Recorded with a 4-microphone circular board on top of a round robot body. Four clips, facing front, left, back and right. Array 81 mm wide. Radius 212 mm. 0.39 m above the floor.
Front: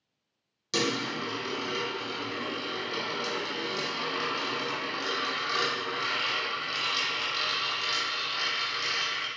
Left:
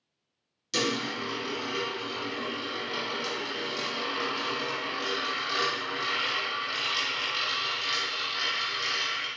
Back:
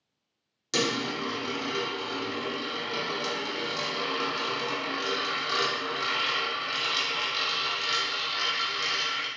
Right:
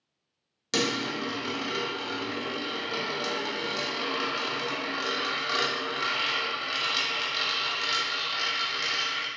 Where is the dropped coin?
95° right, 1.4 m.